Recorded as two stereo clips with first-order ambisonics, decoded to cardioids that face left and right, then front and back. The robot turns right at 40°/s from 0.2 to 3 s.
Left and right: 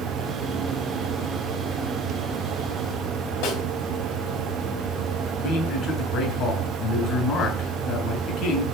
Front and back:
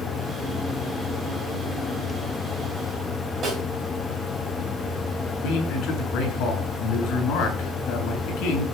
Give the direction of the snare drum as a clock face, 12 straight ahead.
8 o'clock.